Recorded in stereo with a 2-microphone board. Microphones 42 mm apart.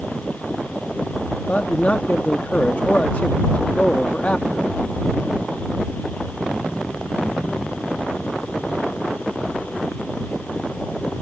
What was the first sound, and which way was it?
A man speaking, 40° left (ahead or behind).